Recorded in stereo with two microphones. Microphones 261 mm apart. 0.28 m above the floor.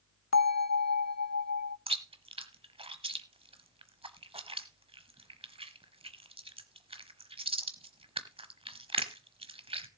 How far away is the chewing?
About 1.1 m.